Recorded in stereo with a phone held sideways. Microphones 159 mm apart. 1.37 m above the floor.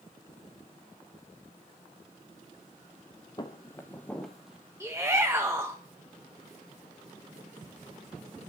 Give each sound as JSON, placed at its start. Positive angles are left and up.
{"t": 3.4, "sound": "footsteps", "side_deg": 25, "distance_m": 1.6}
{"t": 4.8, "sound": "a shout", "side_deg": -20, "distance_m": 1.6}